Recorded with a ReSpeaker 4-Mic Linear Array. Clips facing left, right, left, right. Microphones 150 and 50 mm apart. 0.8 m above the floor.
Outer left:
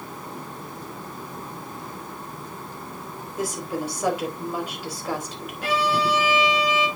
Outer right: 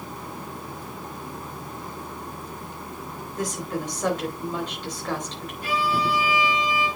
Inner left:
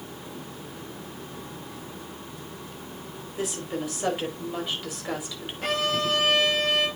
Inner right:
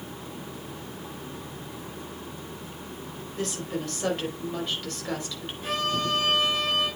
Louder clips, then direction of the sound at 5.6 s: Outer left 2 dB, inner left 2 dB; 85° left.